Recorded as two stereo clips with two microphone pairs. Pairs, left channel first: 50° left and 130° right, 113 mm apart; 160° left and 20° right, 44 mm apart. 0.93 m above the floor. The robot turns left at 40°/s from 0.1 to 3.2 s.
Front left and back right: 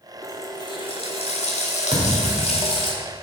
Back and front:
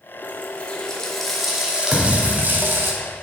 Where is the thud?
110° right, 1.8 m; by 2.5 s 130° right, 1.8 m.